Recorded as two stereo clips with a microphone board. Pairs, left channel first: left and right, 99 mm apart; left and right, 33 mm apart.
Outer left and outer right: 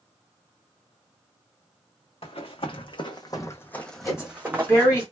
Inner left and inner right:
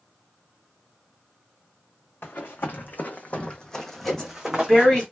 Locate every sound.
2.2 s running footsteps: 75° left (ahead or behind), 0.9 m; by 5.0 s 30° right (ahead or behind), 0.9 m
4.0 s a woman speaking: 25° left (ahead or behind), 1.7 m